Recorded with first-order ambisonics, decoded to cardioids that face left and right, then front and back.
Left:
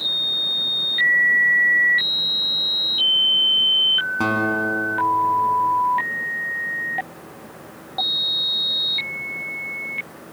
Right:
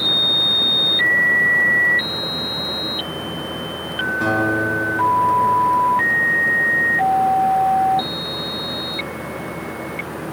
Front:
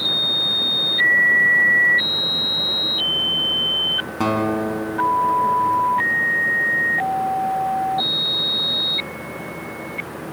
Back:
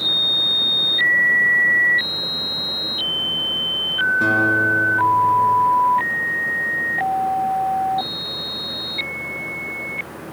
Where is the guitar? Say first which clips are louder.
Right 2 dB, back 5 dB; 35° left, 4 m.